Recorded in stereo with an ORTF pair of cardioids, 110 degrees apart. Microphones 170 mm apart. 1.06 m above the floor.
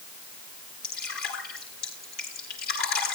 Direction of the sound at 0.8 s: 65° left.